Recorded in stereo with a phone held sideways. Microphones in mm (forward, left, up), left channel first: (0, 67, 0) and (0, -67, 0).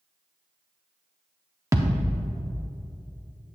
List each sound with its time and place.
1.7 s a thud: 20° right (ahead or behind), 0.6 m